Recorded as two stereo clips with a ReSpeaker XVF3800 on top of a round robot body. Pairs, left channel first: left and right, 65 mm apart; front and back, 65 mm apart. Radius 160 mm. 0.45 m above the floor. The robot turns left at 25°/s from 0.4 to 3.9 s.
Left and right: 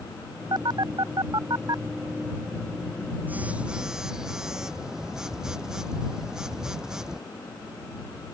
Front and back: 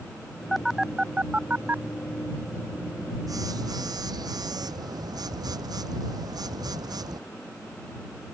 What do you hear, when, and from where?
0.5 s a phone buzzing: 90° right; by 7.2 s 175° right